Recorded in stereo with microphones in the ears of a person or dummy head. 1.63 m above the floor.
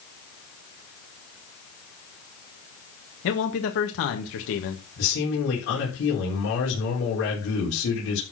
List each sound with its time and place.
3.2 s a man speaking: 70° left (ahead or behind), 1.6 m
5.0 s a man speaking: 70° left (ahead or behind), 4 m